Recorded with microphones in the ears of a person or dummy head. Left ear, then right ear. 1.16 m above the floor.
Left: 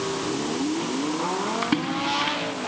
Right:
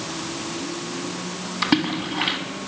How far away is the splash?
About 1.7 m.